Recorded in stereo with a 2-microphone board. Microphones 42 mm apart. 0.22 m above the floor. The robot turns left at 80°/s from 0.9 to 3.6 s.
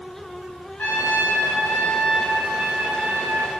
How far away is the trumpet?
About 0.6 m.